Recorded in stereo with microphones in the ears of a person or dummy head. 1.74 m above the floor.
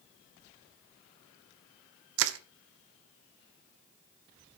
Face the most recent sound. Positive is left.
turn(degrees=-75)  # may be behind; listen again after turning